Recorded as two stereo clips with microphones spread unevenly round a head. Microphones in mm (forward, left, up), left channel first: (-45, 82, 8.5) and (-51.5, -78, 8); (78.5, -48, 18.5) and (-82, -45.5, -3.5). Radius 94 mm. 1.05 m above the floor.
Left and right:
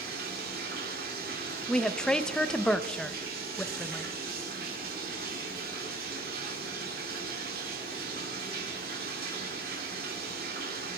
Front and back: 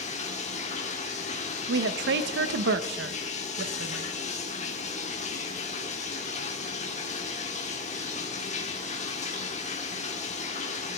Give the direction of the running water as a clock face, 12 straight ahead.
2 o'clock.